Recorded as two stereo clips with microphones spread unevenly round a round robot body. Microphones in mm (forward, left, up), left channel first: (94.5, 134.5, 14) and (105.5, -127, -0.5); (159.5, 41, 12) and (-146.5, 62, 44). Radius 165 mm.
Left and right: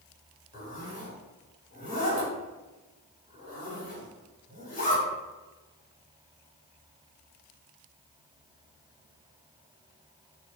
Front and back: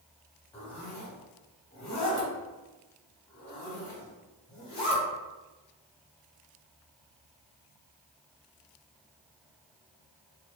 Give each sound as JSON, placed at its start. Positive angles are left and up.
{"t": 0.5, "sound": "a zipper", "azimuth_deg": 55, "distance_m": 1.7}